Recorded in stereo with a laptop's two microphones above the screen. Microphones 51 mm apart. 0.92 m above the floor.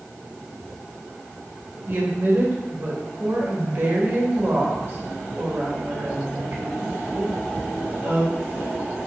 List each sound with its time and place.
1.9 s a woman speaking: 55° right (ahead or behind), 1.5 m